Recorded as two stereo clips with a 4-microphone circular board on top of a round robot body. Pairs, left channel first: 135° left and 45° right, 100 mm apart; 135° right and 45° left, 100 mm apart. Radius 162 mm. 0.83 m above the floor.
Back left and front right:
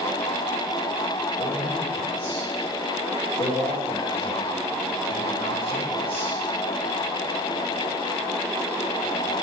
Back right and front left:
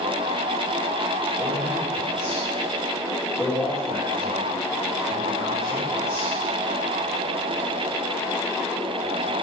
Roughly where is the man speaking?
Behind left.